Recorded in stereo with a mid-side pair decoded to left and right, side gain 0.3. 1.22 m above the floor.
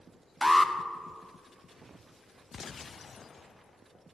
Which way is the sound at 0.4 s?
5° left.